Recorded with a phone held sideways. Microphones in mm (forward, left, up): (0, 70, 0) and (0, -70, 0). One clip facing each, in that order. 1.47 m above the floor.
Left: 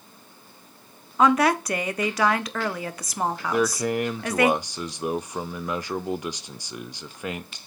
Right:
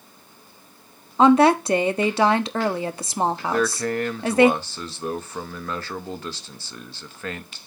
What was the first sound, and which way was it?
A woman speaking, 30° right (ahead or behind).